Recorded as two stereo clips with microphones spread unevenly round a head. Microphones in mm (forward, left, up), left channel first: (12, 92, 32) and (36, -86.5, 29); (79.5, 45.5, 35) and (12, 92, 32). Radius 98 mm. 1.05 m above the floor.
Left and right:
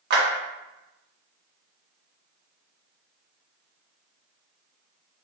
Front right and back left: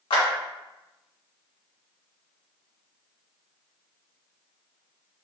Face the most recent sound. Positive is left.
turn(degrees=-60)